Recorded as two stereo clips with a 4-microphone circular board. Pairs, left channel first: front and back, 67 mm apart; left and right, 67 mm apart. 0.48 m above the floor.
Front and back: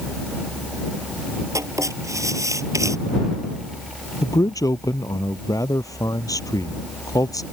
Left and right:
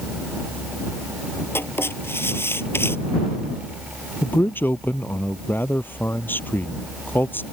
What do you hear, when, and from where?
1.6 s writing: 145° left
4.2 s a man speaking: 30° left